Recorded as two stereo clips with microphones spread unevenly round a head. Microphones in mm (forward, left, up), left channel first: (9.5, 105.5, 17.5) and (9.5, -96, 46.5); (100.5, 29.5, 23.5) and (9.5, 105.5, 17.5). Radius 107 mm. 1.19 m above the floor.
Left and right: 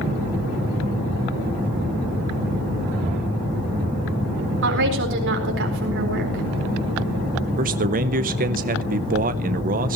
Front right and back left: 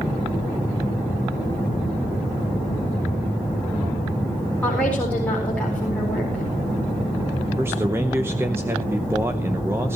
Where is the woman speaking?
125° right, 4.5 m.